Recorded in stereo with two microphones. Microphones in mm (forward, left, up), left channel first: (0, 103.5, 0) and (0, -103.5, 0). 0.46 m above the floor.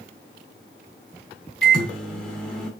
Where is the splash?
I don't hear a splash.